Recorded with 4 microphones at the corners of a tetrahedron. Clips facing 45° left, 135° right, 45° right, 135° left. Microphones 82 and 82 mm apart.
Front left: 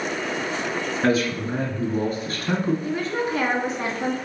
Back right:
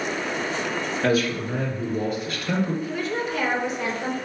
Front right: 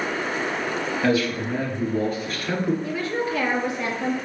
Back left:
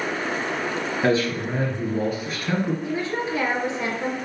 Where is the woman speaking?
75° left, 2 m.